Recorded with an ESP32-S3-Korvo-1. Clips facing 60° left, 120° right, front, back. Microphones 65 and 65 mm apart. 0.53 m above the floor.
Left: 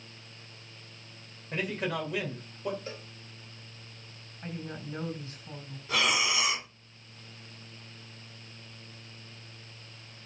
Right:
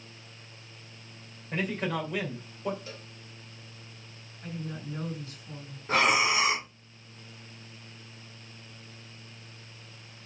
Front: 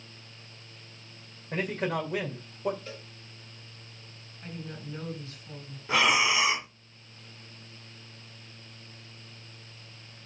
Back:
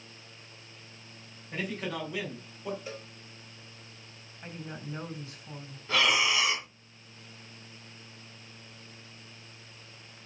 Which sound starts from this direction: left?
A cowbell, at 2.9 s.